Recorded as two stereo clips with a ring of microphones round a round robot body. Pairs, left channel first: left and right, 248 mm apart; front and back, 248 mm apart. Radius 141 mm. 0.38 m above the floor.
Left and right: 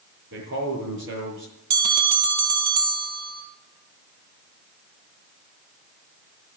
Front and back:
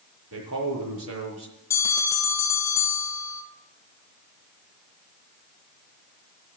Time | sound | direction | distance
0.3 | a man speaking | 140° right | 7 m
1.7 | a bell | 80° right | 2.5 m